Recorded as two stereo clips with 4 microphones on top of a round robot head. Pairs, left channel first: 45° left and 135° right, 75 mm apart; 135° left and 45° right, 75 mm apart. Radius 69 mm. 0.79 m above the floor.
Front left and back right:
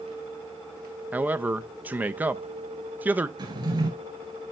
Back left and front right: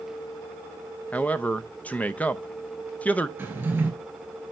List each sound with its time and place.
1.1 s a man speaking: 175° right, 0.5 m
3.4 s a drawer: 110° right, 3.5 m